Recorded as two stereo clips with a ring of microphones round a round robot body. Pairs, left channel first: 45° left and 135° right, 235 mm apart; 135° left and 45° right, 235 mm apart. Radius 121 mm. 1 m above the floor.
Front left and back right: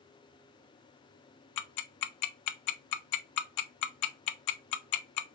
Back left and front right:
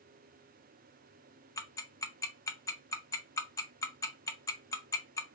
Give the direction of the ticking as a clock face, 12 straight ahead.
10 o'clock.